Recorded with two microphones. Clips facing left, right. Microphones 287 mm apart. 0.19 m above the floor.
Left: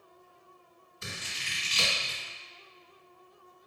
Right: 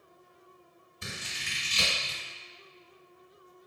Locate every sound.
1.0 s scissors: 15° right (ahead or behind), 1.8 m